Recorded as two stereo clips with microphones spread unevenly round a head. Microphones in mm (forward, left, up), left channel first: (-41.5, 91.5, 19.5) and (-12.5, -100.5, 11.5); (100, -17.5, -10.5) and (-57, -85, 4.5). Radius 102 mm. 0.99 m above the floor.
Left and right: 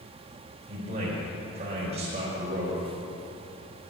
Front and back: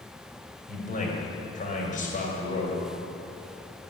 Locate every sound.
0.7 s a man speaking: 20° right, 4 m